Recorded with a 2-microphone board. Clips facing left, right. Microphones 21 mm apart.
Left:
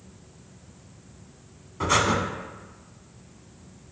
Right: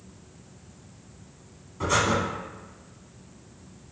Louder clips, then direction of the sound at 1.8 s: Left 1 dB; 20° left (ahead or behind).